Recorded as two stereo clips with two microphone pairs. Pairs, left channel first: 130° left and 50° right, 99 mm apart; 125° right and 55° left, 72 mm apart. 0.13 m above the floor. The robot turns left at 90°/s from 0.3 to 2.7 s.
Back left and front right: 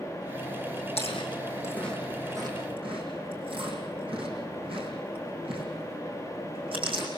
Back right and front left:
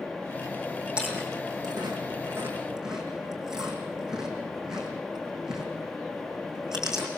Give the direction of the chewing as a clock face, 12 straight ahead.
8 o'clock.